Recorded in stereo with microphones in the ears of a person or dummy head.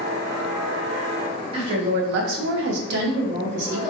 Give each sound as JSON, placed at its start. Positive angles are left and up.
{"t": 1.5, "sound": "a woman speaking", "side_deg": -30, "distance_m": 0.7}